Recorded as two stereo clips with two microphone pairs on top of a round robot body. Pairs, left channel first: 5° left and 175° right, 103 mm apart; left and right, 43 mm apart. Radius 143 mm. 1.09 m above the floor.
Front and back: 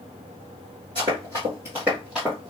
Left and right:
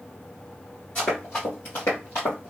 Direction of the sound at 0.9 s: 140° left.